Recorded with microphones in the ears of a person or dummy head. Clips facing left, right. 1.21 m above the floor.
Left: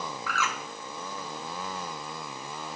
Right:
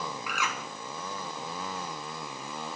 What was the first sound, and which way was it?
A bird, 10° right (ahead or behind).